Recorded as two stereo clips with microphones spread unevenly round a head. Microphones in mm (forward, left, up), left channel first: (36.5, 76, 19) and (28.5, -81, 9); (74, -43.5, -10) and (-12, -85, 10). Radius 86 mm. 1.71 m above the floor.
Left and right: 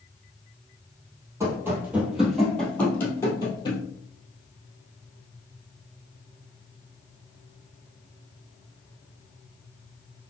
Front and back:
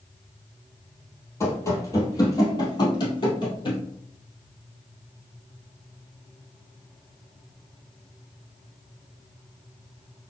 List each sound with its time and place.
1.4 s running footsteps: 30° right, 2.0 m; by 3.8 s 50° left, 2 m